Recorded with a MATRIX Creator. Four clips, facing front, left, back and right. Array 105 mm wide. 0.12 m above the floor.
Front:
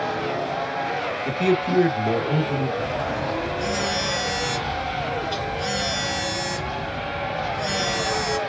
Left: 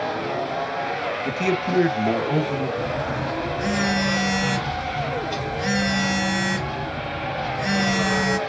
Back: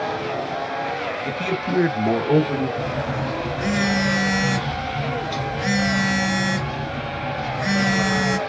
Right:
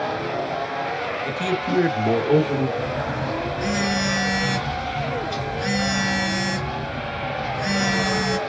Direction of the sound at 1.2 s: 80° left.